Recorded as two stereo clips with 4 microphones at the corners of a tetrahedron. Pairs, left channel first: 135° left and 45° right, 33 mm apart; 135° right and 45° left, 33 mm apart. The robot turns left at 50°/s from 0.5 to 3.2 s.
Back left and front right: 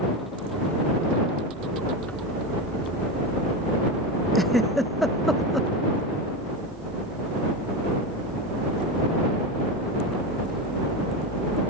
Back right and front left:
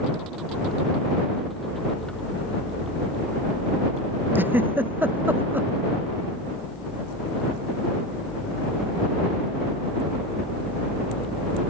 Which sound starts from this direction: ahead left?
A giggle, at 4.3 s.